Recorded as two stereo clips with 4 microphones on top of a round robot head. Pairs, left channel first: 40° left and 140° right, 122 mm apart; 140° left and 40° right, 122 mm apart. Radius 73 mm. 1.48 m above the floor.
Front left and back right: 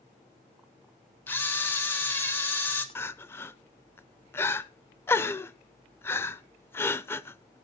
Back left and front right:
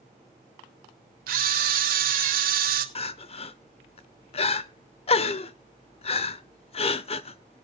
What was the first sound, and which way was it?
A camera shutter, 35° right.